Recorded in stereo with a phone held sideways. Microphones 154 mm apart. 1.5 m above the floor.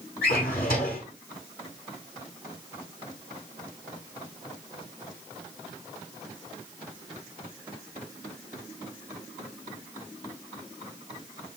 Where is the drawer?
75° left (ahead or behind), 2.5 m.